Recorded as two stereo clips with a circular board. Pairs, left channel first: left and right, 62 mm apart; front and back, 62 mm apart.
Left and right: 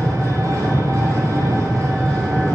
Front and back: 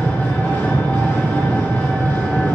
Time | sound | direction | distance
0.0 | an engine running | 65° right | 1.7 m